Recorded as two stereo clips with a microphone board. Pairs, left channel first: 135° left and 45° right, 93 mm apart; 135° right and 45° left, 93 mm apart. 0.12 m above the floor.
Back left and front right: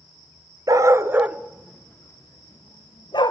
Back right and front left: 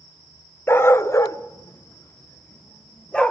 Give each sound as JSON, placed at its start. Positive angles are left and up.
{"t": 0.7, "sound": "a dog barking", "azimuth_deg": -80, "distance_m": 0.7}